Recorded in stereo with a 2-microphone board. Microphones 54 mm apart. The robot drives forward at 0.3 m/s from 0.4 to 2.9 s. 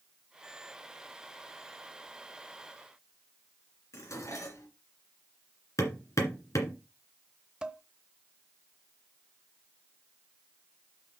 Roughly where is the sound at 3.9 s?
Left.